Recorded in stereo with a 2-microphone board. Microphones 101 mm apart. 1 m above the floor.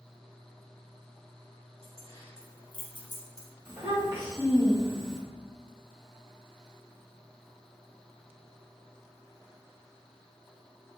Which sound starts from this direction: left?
Keys jangling, at 1.8 s.